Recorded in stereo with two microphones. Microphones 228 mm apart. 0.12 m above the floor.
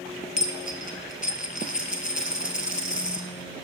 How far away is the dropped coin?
About 0.7 m.